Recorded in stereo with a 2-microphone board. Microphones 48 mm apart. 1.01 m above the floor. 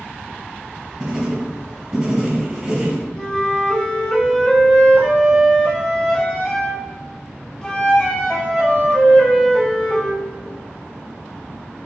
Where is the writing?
15° right (ahead or behind), 1.1 m.